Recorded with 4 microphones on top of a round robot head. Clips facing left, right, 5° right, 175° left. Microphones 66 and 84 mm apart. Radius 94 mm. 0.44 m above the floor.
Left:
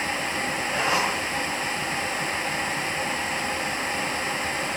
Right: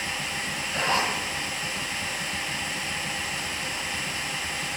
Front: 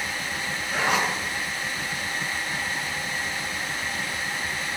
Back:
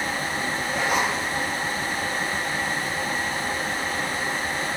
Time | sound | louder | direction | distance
0.7 | a zipper | left 1 dB, front 1 dB | 10° left | 5 m